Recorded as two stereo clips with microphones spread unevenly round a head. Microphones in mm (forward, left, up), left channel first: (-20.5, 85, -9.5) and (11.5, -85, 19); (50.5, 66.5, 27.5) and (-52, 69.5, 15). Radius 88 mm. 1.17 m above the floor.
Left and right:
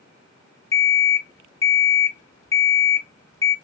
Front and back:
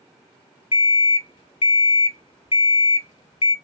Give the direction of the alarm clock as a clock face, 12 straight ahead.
11 o'clock.